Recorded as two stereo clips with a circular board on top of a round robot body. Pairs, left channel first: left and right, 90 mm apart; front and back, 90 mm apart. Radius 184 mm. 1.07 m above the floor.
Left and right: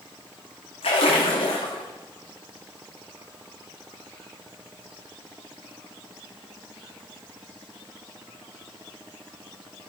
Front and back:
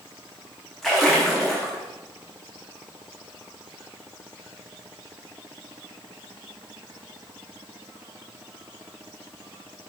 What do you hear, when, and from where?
0.8 s a splash: 85° left, 0.9 m